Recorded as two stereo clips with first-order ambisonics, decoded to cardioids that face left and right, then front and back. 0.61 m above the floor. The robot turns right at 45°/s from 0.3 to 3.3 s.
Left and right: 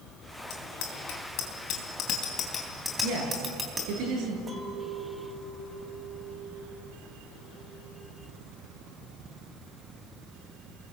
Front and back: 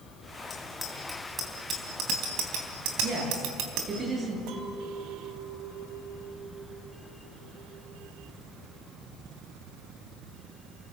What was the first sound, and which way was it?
A bicycle bell, 70° left.